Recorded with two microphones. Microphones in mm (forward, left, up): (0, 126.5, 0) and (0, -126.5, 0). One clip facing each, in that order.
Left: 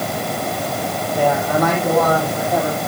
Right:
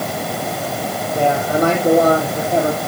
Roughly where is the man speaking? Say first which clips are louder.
Right 1 dB; right.